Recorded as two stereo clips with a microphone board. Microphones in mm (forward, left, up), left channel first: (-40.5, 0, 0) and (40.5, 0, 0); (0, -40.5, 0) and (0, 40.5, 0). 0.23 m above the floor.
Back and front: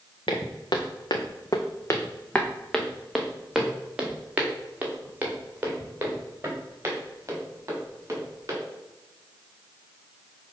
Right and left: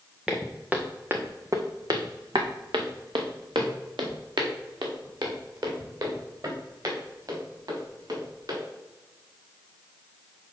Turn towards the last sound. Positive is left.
turn(degrees=55)